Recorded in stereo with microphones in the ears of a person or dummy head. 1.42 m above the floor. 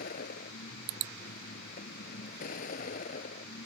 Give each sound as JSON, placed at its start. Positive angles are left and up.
{"t": 0.0, "sound": "a vehicle", "side_deg": 50}